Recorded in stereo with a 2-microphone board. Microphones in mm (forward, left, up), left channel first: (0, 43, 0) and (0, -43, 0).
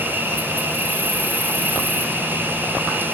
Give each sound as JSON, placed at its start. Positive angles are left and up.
{"t": 0.0, "sound": "an insect", "side_deg": -25, "distance_m": 1.9}